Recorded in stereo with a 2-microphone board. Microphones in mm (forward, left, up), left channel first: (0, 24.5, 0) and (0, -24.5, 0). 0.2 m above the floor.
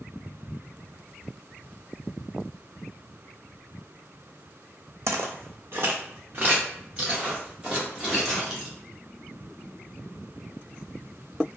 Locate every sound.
5.1 s footsteps: 75° right (ahead or behind), 0.6 m; by 8.7 s 10° right (ahead or behind), 2 m